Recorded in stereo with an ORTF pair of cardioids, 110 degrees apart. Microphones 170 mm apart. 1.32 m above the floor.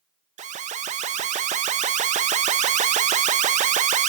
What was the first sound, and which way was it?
An alarm, 45° right.